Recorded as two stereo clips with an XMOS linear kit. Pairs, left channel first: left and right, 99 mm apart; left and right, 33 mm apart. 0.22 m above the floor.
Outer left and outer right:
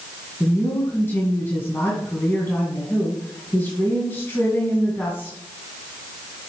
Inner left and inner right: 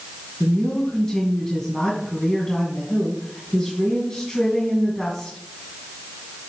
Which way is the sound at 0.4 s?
25° left (ahead or behind).